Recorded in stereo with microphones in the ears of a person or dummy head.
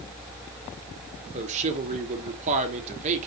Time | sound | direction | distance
1.3 | a man speaking | 40° right (ahead or behind) | 1.2 m